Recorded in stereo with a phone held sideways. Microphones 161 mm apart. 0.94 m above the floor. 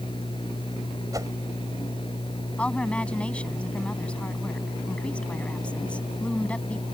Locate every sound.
0.0 s a machine running: 30° left (ahead or behind)
1.1 s a whoosh: 20° right (ahead or behind)
2.6 s a woman speaking: 5° left (ahead or behind)